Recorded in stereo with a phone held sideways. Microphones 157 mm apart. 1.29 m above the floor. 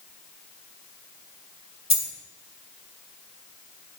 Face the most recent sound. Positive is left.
turn(degrees=-45)  # may be behind; listen again after turning